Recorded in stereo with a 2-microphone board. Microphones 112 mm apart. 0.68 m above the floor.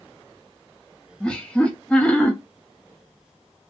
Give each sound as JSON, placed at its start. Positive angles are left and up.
{"t": 1.2, "sound": "laughter", "side_deg": 10, "distance_m": 0.7}